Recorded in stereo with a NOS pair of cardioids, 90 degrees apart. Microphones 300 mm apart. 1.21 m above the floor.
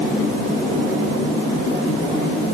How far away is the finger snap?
I don't hear a finger snap.